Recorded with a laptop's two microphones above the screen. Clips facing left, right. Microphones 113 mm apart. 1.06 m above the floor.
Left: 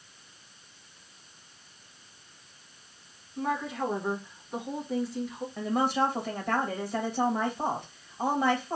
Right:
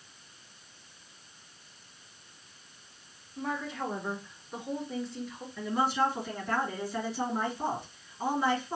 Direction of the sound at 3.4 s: 5° left (ahead or behind).